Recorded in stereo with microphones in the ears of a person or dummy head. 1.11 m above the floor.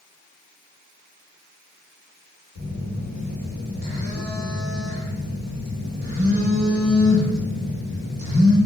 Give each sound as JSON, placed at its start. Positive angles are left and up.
{"t": 2.5, "sound": "a phone buzzing", "side_deg": -50, "distance_m": 1.5}